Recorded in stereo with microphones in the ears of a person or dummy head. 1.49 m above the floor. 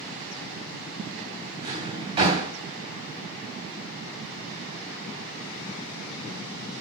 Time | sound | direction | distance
1.6 | a drawer | 20° right (ahead or behind) | 3 m